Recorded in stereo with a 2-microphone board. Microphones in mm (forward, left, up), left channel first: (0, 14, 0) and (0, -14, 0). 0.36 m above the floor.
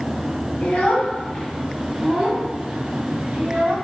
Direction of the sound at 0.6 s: 45° left (ahead or behind).